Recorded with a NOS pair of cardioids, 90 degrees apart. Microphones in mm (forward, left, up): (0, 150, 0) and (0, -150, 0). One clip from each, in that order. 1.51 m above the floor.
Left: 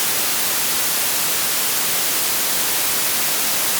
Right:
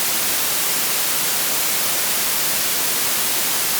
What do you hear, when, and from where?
Only background noise.